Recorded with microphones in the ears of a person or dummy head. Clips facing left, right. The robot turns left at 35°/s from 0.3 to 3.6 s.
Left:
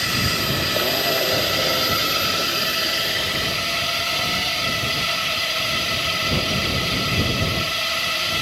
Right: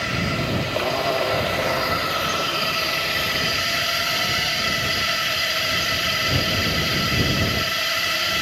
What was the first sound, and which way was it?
A drone, 100° left.